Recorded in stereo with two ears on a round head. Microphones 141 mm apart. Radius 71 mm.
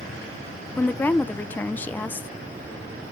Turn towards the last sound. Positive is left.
turn(degrees=10)  # may be behind; listen again after turning